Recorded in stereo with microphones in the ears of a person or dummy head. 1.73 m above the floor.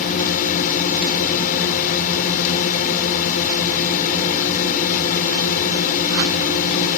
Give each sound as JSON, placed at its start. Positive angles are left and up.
{"t": 0.0, "sound": "a drone", "side_deg": 45}